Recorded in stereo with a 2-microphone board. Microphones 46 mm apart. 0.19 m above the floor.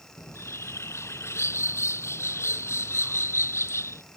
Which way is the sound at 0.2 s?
70° left (ahead or behind).